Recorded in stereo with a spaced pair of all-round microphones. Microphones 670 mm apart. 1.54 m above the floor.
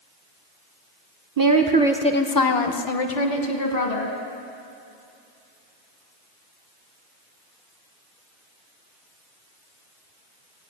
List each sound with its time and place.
1.4 s a woman speaking: 35° right (ahead or behind), 0.8 m; by 4.2 s 75° left (ahead or behind), 1.7 m